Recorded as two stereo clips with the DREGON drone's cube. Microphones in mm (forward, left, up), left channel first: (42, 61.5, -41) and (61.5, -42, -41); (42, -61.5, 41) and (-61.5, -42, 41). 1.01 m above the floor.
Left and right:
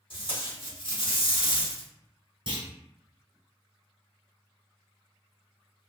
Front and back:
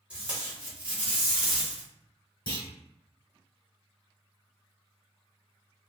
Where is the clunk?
50° right, 1.5 m.